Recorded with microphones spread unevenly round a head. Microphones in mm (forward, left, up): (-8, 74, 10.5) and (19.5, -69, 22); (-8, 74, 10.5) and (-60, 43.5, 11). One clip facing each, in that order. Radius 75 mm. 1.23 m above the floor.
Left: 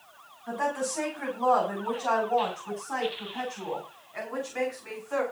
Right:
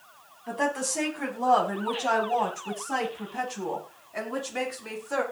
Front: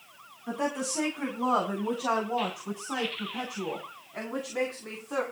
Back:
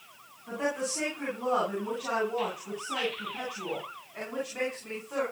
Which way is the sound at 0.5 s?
15° right.